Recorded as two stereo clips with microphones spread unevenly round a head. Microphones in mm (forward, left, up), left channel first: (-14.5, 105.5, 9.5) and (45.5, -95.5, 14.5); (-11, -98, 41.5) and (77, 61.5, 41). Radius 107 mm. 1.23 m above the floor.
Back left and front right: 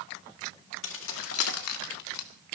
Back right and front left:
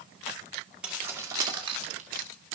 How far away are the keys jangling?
About 1.9 m.